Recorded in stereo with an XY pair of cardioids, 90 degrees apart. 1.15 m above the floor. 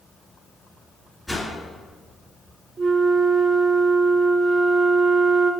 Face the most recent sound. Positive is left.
turn(degrees=-55)